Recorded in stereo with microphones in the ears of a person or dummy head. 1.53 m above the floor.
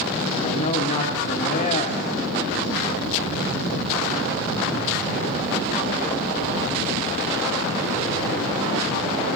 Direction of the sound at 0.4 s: 40° left (ahead or behind).